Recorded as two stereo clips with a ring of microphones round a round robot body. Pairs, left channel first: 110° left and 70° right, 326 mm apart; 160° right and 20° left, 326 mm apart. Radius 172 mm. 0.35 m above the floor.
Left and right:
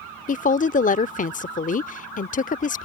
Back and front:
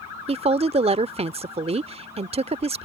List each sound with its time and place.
0.3 s a woman speaking: 75° left